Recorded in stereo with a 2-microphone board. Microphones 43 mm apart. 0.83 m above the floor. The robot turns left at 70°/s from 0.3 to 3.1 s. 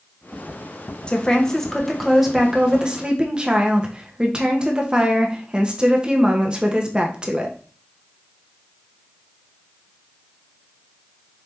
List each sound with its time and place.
1.1 s a woman speaking: 20° left (ahead or behind), 0.8 m; by 7.6 s 20° right (ahead or behind), 0.8 m